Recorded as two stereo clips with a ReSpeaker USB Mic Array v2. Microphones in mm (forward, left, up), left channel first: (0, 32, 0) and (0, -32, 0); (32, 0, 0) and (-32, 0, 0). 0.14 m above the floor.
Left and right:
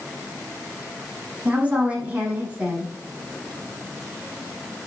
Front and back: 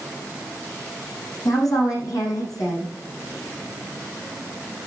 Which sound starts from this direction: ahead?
A woman speaking, at 1.4 s.